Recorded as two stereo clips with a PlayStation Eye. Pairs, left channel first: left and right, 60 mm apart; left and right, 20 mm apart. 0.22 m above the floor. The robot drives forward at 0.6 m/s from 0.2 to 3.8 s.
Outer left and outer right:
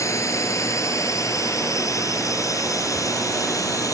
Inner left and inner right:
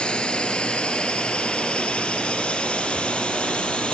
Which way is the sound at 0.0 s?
55° left (ahead or behind).